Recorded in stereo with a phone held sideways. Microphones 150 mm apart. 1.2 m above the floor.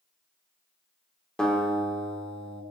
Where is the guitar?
5° left (ahead or behind), 1.5 m.